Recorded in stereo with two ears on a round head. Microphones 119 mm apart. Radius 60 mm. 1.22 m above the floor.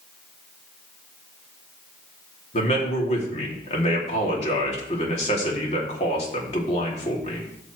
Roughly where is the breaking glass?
I don't hear breaking glass.